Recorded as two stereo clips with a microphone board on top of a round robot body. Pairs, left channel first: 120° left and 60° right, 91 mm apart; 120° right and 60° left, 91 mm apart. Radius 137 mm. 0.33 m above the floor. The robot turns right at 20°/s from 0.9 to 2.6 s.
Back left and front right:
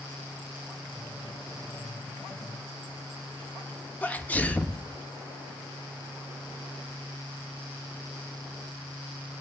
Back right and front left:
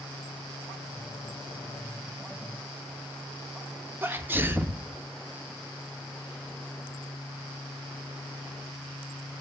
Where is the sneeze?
75° left, 0.8 m.